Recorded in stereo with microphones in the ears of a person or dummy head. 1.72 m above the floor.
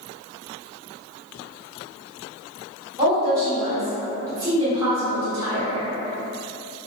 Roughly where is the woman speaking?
Centre.